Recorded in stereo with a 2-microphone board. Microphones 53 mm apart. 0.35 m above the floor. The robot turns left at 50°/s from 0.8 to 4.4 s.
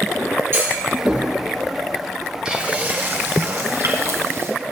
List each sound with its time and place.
0.5 s a clunk: 50° right (ahead or behind), 4 m; by 1.2 s 25° right (ahead or behind), 4 m
2.5 s frying: 15° right, 3 m; by 4.5 s 115° right, 3 m